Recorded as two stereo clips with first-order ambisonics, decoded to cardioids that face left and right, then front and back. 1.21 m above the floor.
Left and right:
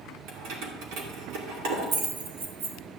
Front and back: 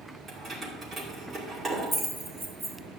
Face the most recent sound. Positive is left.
turn(degrees=-100)